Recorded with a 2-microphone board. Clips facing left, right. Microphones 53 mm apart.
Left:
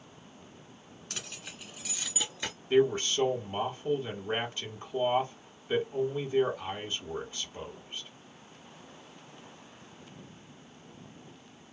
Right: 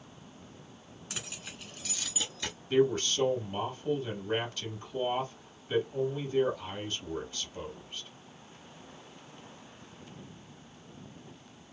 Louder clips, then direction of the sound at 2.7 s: Left 1 dB; 30° left (ahead or behind).